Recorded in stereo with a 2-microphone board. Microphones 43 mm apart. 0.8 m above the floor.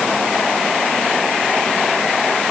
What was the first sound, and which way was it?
Only background noise.